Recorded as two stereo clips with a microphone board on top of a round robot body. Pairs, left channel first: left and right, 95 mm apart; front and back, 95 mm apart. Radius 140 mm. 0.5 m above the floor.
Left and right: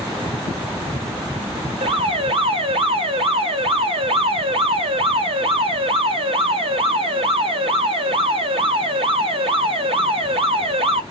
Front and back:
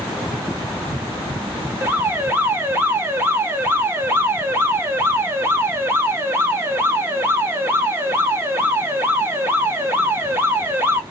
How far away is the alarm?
About 1.3 m.